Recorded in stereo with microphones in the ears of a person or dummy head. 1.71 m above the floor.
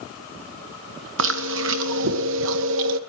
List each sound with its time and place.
1.2 s chewing: 75° right (ahead or behind), 1.7 m